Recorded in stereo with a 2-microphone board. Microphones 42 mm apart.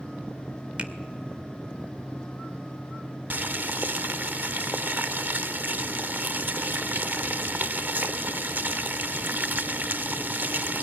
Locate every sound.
0.8 s a finger snap: 30° right (ahead or behind), 2.0 m
3.3 s boiling: 45° right (ahead or behind), 0.7 m